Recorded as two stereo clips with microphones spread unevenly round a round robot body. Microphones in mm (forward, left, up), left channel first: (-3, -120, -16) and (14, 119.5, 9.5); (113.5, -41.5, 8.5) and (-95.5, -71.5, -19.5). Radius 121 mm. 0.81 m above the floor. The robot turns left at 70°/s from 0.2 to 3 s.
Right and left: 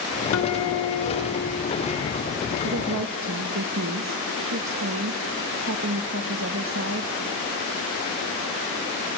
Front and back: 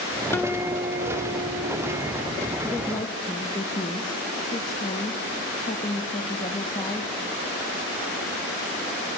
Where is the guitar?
70° right, 1.2 m; by 2.0 s 170° left, 1.2 m.